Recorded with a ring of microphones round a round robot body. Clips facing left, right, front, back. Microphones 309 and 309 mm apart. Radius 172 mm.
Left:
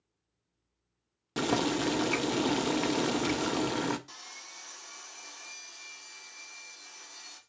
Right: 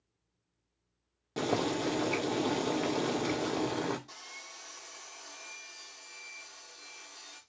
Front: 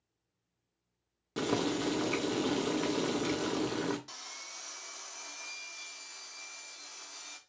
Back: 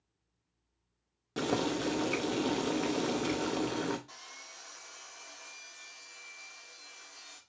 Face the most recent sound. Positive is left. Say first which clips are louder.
# right 1 dB, front 2 dB
turn(degrees=25)